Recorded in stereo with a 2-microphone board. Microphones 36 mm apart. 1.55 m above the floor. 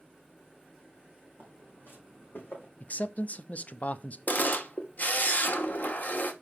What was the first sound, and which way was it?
Footsteps, 60° left (ahead or behind).